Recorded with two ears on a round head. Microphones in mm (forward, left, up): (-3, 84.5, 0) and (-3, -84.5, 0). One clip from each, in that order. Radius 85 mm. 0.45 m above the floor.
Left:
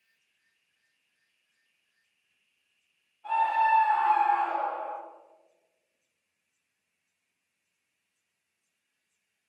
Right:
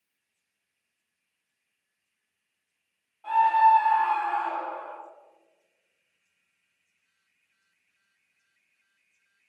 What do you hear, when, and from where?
3.2 s a scream: 25° right (ahead or behind), 1.2 m; by 5.0 s 20° left (ahead or behind), 1.5 m